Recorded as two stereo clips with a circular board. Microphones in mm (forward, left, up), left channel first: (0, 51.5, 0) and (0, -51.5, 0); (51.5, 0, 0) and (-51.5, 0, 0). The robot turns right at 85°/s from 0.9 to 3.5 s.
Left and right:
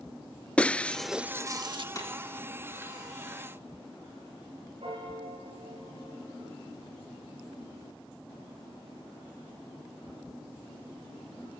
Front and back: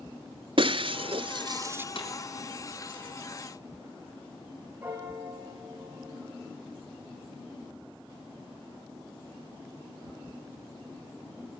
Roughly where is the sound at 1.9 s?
Ahead left.